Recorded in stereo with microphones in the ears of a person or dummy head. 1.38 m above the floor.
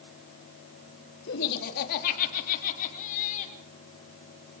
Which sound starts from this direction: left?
Laughter, at 1.3 s.